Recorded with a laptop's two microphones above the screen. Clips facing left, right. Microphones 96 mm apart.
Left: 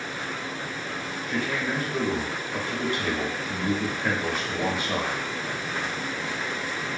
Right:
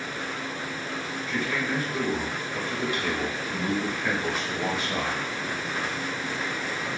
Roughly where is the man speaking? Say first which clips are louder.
Left 1 dB; left.